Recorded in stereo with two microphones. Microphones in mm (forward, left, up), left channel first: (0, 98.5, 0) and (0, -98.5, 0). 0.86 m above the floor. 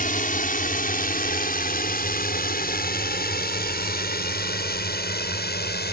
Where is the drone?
50° left (ahead or behind); by 5.9 s 60° left (ahead or behind).